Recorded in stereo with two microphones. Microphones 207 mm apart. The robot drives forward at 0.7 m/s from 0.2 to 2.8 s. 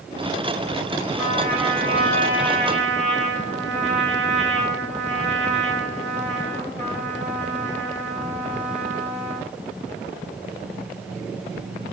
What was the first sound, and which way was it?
A trumpet, 30° right (ahead or behind).